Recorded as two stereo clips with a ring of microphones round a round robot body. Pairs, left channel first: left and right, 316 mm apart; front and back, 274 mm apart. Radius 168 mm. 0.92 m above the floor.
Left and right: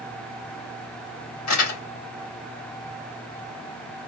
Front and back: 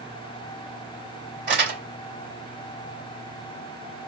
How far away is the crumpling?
About 3.5 m.